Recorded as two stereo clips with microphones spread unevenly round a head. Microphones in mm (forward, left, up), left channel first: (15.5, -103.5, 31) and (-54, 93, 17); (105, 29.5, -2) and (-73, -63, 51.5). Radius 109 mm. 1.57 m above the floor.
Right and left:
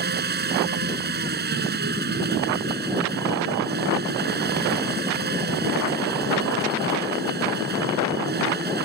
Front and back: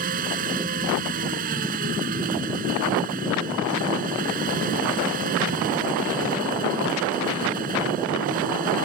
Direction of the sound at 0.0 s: 155° left.